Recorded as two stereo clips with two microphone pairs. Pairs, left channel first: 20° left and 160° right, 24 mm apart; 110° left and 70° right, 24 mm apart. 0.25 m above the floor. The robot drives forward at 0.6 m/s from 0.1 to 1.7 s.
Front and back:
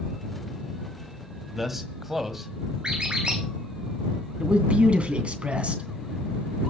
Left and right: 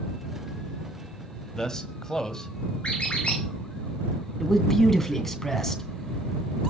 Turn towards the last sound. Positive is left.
turn(degrees=-175)